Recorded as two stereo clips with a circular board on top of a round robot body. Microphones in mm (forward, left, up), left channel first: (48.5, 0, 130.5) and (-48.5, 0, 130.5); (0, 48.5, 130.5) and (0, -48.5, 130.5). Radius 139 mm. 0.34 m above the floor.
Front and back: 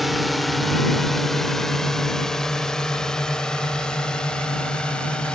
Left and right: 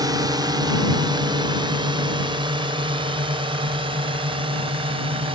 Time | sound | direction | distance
0.0 | a drone | 90° right | ?